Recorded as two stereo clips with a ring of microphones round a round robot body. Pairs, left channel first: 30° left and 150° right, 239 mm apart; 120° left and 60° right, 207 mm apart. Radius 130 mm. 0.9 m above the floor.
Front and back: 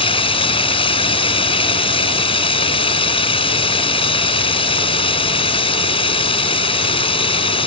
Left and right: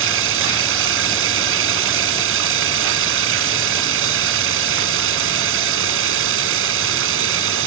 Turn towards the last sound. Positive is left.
turn(degrees=-40)